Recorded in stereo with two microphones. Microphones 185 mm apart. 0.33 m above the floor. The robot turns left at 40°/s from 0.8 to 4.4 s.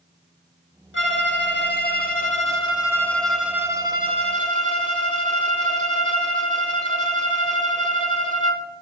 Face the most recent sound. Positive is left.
turn(degrees=-45)